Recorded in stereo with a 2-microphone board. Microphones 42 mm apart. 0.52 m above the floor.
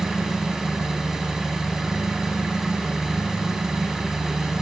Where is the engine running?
10° right (ahead or behind), 0.9 m.